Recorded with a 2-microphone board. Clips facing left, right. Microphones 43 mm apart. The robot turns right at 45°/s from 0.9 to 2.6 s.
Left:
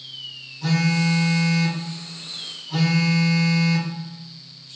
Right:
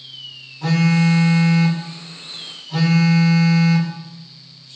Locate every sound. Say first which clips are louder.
0.6 s a phone buzzing: right 4 dB; 70° right, 0.8 m; by 3.9 s 5° left, 0.8 m